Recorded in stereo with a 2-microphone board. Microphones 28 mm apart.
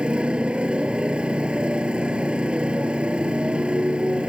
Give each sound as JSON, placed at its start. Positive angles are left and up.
{"t": 0.0, "sound": "a motorcycle", "side_deg": -40}